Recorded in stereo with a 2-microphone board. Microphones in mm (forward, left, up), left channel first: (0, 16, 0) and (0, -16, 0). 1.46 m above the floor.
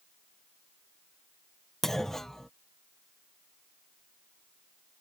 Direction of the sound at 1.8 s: 10° left (ahead or behind).